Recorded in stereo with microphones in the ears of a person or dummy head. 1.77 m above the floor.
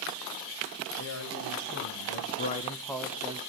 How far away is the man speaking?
About 2.5 m.